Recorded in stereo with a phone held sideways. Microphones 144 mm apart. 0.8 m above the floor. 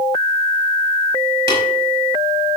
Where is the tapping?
35° right (ahead or behind), 5 m.